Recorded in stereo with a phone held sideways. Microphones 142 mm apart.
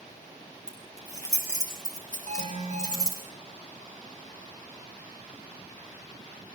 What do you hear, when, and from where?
0.7 s keys jangling: 25° left (ahead or behind), 5.5 m; by 3.2 s 30° left (ahead or behind), 7.5 m
2.3 s an alarm: 45° right (ahead or behind), 7.5 m